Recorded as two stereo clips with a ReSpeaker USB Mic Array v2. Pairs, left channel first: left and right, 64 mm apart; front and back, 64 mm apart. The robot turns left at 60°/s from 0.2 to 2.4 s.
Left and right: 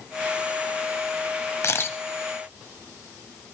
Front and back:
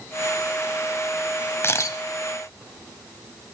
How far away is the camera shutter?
About 0.6 m.